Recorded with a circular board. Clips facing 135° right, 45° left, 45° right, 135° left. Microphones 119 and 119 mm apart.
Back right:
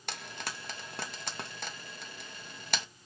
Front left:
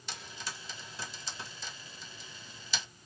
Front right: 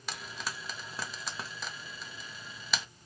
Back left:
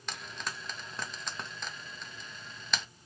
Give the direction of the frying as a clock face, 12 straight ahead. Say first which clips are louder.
Back right 3 dB, even; 4 o'clock.